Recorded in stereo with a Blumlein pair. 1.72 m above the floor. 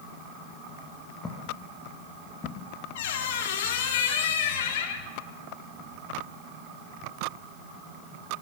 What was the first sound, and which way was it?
Footsteps, 10° left.